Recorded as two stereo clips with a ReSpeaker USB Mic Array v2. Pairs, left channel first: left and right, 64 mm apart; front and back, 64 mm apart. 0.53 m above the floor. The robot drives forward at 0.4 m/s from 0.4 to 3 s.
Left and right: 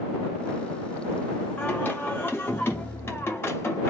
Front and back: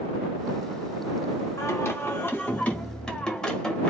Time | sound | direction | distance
1.6 | singing | 30° left | 0.9 m